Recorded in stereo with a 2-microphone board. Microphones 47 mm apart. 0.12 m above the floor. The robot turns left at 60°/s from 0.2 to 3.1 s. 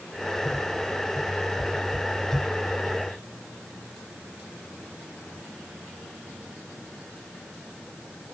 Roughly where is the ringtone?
I don't hear a ringtone.